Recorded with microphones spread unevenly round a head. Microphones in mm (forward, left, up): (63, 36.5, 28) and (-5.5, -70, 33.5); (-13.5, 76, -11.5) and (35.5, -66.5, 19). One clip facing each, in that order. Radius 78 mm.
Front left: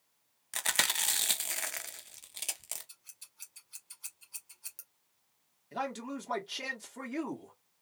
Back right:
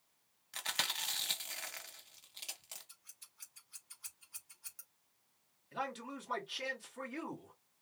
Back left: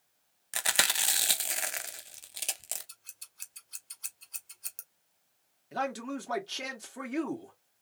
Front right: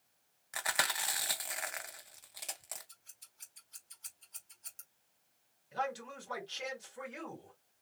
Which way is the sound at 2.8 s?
120° left.